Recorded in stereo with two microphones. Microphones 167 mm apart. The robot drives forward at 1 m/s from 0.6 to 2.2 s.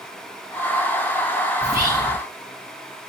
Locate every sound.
1.6 s whispering: 20° right (ahead or behind), 1.1 m